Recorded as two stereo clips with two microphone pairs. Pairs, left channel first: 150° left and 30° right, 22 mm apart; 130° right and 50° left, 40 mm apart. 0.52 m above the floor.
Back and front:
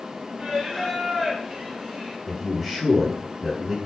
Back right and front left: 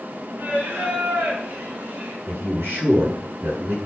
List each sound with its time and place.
0.4 s singing: 20° left, 4.5 m
2.3 s a man speaking: 40° left, 5 m